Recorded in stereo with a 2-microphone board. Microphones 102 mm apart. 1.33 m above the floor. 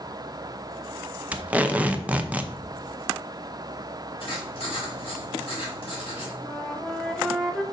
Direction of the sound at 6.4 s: 5° left (ahead or behind).